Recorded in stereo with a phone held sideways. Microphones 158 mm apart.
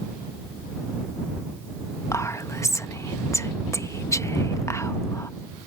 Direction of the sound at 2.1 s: 20° left (ahead or behind).